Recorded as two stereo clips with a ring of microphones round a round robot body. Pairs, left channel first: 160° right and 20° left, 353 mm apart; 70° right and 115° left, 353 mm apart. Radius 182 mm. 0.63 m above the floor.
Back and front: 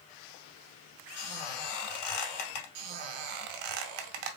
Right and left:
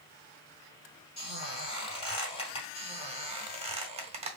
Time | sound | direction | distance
1.2 | a squeak | 140° right | 2.5 m
2.8 | a squeak | 40° left | 0.8 m